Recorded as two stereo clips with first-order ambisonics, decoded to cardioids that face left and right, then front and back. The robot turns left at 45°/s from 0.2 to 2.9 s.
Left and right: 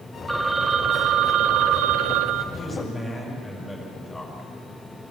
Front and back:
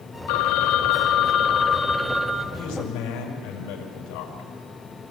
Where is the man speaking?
25° left, 5.5 m; by 4.5 s 10° left, 5.5 m.